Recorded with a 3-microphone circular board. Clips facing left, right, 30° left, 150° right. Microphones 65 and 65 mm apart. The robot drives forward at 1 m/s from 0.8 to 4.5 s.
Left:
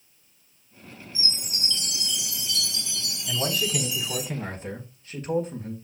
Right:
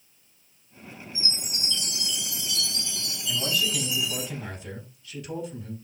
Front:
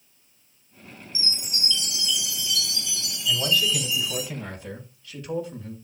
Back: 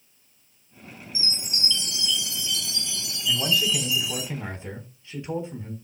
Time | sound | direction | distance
1.1 | a chime | 100° left | 6.5 m
3.3 | a man speaking | 130° left | 3.5 m